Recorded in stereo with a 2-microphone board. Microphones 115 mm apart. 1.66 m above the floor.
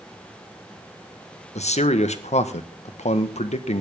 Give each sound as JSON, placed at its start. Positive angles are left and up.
{"t": 1.6, "sound": "a man speaking", "side_deg": 75, "distance_m": 1.4}